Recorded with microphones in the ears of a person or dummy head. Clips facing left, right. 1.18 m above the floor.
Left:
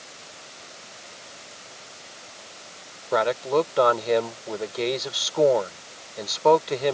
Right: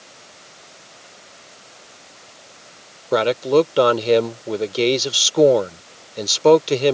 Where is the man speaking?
40° right (ahead or behind).